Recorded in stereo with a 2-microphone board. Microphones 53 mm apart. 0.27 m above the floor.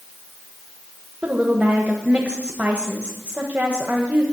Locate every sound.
1.2 s a woman speaking: 20° right (ahead or behind), 1.1 m